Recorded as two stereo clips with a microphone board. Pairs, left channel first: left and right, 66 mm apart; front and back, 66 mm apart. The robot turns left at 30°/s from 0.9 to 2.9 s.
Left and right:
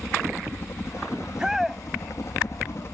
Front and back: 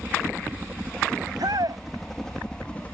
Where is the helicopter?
120° left; by 3.0 s 60° left.